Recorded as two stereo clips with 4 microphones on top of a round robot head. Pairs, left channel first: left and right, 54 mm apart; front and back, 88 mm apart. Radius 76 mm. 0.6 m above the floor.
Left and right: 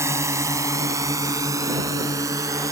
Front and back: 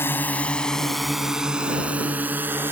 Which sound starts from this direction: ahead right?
A drone, at 0.0 s.